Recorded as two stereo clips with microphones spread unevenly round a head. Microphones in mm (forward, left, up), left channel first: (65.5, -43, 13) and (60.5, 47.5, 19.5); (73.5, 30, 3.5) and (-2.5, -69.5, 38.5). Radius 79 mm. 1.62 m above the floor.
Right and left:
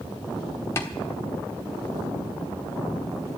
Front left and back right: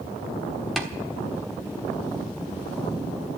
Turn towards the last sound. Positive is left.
turn(degrees=-85)